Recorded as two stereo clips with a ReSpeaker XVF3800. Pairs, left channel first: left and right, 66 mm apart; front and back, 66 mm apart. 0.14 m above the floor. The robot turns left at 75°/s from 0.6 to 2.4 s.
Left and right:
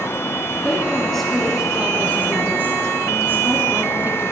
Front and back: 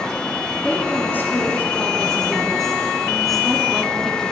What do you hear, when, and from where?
0.6 s a woman speaking: 45° left, 1.5 m; by 4.3 s 85° right, 1.5 m